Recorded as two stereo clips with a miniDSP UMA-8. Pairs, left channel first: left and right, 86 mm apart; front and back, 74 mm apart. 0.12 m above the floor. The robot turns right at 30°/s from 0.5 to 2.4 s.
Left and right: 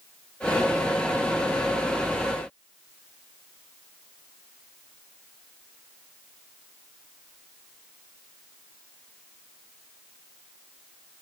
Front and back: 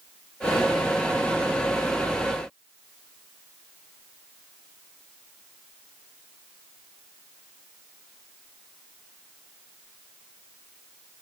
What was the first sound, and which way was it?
Only background noise.